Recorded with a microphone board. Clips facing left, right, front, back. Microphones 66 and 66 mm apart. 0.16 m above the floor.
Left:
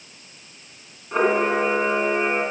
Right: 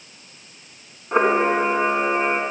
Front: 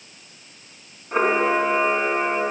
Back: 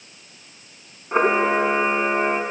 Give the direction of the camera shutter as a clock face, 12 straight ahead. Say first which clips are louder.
Right 2 dB, back 1 dB; 4 o'clock.